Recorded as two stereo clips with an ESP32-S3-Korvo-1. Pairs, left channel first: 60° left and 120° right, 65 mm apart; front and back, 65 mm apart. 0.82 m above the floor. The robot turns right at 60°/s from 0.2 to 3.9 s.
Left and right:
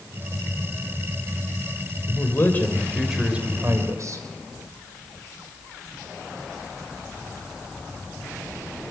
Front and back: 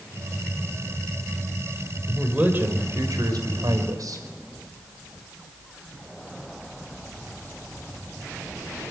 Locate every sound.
2.1 s a man speaking: 95° left, 4 m; by 4.2 s 155° right, 4 m